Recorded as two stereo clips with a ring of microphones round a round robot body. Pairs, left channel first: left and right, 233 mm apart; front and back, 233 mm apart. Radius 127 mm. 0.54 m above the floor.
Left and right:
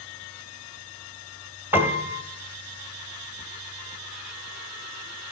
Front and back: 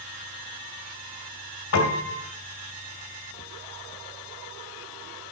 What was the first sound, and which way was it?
A piano, 10° right.